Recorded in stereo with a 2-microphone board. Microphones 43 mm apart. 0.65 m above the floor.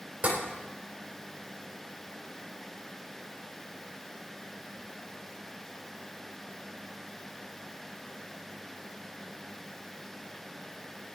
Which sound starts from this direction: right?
Tapping, at 0.2 s.